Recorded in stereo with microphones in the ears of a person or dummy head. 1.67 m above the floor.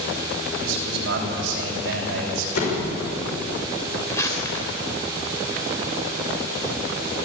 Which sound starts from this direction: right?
A man speaking, at 0.6 s.